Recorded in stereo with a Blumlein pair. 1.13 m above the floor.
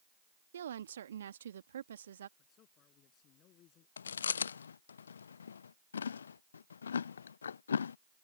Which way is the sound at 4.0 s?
70° left.